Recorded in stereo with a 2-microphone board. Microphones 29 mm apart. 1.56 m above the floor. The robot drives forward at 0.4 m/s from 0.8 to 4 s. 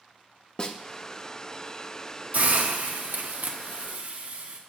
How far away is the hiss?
About 0.7 m.